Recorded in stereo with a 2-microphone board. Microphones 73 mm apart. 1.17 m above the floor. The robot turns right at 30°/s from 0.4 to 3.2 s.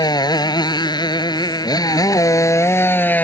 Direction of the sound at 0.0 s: 70° left.